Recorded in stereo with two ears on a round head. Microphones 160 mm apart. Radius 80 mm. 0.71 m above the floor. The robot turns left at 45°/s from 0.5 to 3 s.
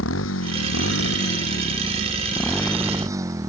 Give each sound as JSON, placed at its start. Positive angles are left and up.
{"t": 0.0, "sound": "a motorcycle", "azimuth_deg": 95}